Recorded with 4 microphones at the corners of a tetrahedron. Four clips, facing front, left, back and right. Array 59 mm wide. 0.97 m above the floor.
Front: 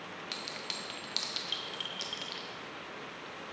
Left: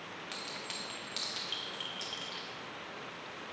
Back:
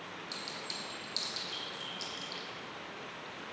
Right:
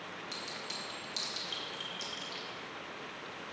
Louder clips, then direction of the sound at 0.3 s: Left 1 dB, front 2 dB; 25° left.